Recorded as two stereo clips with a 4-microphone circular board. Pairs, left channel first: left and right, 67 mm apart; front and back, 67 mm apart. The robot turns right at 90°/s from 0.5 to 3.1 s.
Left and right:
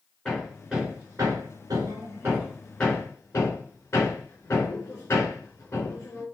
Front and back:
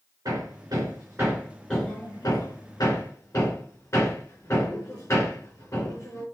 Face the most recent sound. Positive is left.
turn(degrees=45)